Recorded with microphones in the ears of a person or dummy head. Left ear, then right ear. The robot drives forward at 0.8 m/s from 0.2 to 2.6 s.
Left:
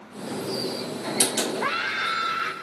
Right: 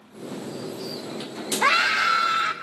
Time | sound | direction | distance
1.6 | a scream | 50° right (ahead or behind) | 0.6 m